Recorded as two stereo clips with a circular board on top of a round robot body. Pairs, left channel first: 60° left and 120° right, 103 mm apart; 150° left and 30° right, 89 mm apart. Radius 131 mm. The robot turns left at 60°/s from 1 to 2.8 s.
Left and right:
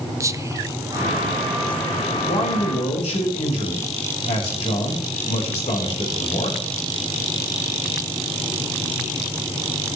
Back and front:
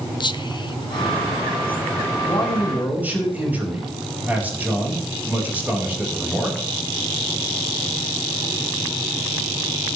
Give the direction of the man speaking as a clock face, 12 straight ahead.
9 o'clock.